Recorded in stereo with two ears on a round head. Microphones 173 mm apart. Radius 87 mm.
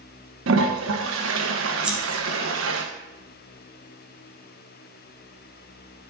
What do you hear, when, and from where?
0.5 s a toilet flushing: 75° right (ahead or behind), 1.4 m
1.8 s scissors: 5° right (ahead or behind), 2 m